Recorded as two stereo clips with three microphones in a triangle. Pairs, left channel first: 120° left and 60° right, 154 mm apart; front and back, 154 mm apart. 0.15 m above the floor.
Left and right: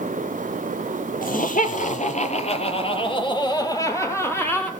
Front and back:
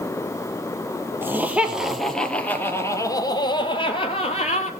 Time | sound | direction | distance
1.2 | laughter | 105° left | 3 m